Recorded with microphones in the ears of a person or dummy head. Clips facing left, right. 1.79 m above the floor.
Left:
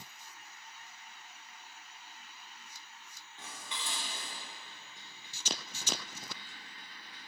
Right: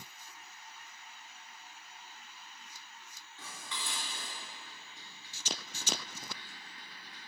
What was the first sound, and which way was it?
Dishes clattering, 20° left (ahead or behind).